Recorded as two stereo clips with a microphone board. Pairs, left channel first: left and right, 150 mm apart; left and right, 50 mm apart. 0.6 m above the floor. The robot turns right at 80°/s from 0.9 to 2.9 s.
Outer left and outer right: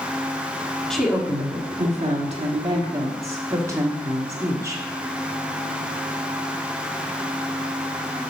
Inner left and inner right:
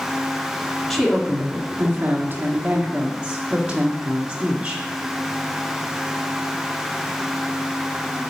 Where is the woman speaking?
175° left, 1.3 m; by 4.8 s 25° right, 1.3 m.